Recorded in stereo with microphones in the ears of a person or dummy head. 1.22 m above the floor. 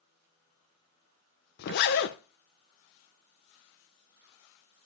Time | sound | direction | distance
1.6 | a zipper | 55° left (ahead or behind) | 0.5 m